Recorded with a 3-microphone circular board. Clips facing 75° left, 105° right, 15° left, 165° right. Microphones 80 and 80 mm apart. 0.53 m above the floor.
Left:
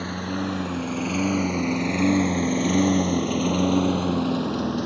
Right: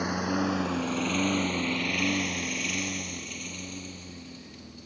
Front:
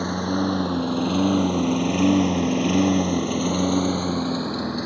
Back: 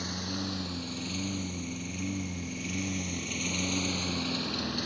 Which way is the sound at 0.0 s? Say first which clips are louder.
Even, front 13 dB; 25° right.